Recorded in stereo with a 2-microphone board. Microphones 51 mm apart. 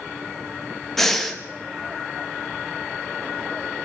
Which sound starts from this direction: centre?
Breathing, at 1.0 s.